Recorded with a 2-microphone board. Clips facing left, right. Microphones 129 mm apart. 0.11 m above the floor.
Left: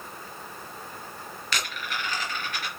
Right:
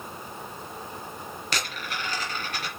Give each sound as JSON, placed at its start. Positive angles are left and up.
{"t": 1.5, "sound": "a dropped coin", "side_deg": -40, "distance_m": 4.0}